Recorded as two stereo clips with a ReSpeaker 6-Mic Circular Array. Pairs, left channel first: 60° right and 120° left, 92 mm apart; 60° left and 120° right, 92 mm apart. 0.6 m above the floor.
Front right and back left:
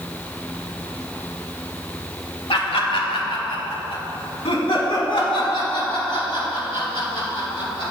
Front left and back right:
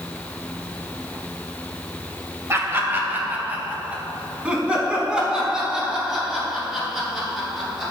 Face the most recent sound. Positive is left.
turn(degrees=-35)